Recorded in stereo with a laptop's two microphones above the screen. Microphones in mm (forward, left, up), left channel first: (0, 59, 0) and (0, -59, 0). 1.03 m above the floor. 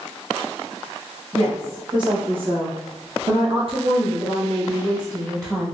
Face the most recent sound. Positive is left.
turn(degrees=-25)  # may be behind; listen again after turning